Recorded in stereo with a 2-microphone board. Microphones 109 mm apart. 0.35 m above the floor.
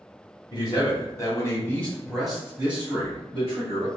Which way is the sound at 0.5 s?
40° left (ahead or behind).